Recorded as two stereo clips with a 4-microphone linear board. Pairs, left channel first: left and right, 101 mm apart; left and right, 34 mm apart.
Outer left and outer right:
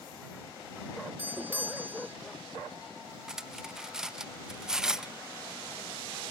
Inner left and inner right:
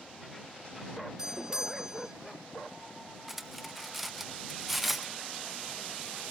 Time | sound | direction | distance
1.2 | a doorbell | 20° right (ahead or behind) | ?
3.3 | cutlery clinking | 5° right (ahead or behind) | ?